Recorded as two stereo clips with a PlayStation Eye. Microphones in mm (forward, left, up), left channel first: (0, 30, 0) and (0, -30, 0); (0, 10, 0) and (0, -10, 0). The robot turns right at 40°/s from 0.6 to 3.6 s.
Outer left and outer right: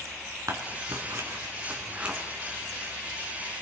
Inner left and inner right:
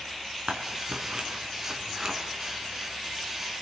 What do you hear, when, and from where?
0.5 s scissors: 65° right (ahead or behind), 3.5 m; by 2.2 s 15° right (ahead or behind), 3.5 m